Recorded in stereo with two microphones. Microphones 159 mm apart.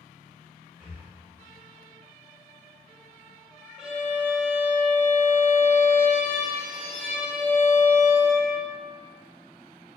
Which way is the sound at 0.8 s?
15° right (ahead or behind).